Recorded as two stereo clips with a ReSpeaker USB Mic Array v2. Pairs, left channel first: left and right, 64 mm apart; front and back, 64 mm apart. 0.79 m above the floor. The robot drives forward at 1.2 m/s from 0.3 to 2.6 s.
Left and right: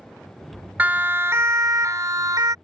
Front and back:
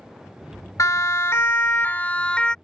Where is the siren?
30° right; by 2.5 s 75° right.